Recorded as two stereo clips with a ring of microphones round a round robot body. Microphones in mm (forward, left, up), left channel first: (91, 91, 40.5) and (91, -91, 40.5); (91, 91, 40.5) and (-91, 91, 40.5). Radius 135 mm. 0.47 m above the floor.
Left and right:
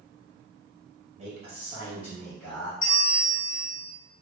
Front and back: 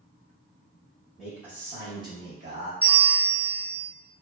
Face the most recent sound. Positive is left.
turn(degrees=80)